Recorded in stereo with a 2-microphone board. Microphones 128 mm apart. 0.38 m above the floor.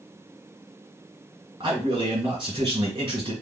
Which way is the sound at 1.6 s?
40° right (ahead or behind).